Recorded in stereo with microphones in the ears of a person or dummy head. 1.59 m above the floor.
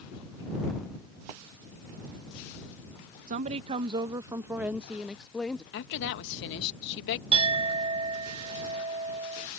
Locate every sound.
3.3 s a woman speaking: 45° right (ahead or behind); by 5.6 s 5° left (ahead or behind)
5.7 s a woman speaking: 65° left (ahead or behind)
7.3 s a clink: 35° right (ahead or behind)